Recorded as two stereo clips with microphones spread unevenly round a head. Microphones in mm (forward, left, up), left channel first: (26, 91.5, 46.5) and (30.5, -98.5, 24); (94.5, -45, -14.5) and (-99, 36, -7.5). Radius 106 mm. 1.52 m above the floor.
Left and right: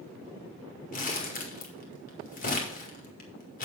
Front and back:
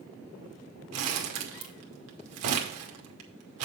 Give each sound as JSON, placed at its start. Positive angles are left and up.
{"t": 0.9, "sound": "crumpling", "azimuth_deg": 145, "distance_m": 2.0}